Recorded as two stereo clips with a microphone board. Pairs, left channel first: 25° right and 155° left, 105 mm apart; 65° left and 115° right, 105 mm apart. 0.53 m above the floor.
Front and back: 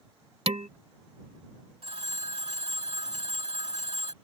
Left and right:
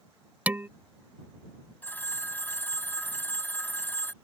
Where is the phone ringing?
140° left.